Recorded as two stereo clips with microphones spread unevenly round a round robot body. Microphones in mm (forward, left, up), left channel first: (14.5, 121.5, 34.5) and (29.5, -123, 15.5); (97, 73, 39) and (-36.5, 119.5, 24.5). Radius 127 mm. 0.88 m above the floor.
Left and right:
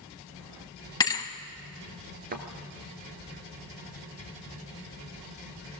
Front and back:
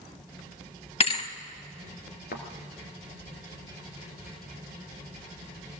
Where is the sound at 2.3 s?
30° right, 2 m.